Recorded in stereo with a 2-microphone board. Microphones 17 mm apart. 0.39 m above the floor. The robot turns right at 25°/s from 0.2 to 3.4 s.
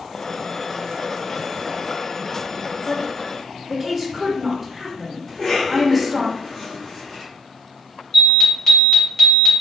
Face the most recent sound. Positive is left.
turn(degrees=25)  # may be behind; listen again after turning